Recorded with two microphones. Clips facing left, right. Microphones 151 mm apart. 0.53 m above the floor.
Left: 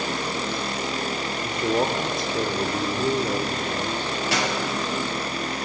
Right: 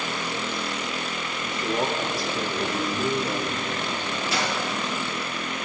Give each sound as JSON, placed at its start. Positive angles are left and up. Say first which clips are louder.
{"t": 1.4, "sound": "a man speaking", "louder": "left 3 dB", "side_deg": 25, "distance_m": 1.2}
{"t": 4.3, "sound": "a dropped coin", "louder": "left 2 dB", "side_deg": 70, "distance_m": 6.0}